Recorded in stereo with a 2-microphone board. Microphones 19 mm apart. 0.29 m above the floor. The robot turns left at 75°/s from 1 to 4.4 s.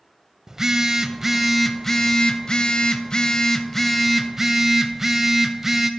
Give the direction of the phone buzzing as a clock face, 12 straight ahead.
5 o'clock.